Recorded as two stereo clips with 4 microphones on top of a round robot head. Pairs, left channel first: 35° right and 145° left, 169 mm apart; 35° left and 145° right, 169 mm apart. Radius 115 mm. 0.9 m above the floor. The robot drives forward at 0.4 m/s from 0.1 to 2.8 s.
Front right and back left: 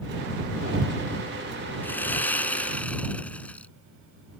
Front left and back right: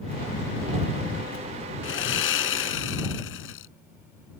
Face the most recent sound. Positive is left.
turn(degrees=45)